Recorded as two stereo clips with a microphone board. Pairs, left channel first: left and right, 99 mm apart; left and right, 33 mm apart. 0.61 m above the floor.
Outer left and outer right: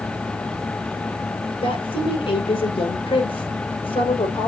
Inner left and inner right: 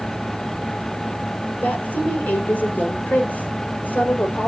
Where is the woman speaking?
65° left (ahead or behind), 2.5 m.